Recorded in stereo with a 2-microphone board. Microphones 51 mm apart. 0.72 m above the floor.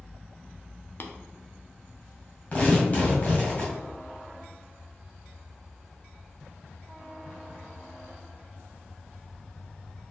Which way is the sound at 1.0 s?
45° left (ahead or behind).